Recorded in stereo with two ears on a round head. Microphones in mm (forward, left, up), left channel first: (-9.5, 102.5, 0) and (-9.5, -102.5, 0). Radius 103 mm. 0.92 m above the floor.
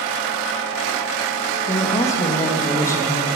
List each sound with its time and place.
1.7 s a woman speaking: 15° left (ahead or behind), 1.1 m